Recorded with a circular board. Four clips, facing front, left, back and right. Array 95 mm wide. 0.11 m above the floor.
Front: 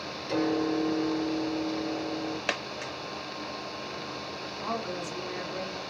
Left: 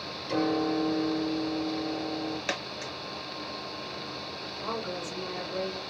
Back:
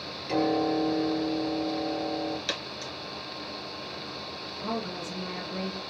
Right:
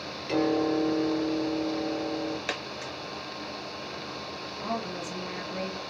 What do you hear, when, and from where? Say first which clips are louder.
0.3 s a piano: right 2 dB, back 2 dB; 115° right, 2.0 m
2.5 s a dropped coin: even, front 3 dB; straight ahead, 0.7 m
4.6 s a woman speaking: right 1 dB, even; 115° right, 2.5 m